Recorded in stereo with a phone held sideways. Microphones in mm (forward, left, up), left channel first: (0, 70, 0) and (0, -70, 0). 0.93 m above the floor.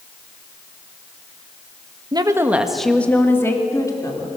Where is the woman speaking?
35° right (ahead or behind), 1.3 m; by 4.3 s 30° left (ahead or behind), 3.5 m.